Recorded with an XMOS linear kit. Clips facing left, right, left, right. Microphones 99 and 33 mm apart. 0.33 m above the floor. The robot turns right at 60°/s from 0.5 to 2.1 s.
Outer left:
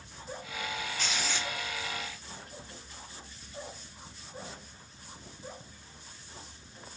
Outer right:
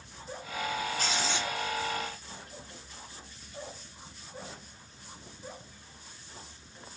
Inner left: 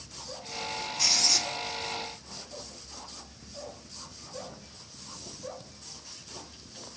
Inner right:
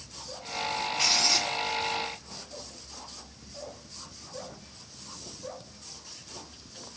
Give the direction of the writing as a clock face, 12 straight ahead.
1 o'clock.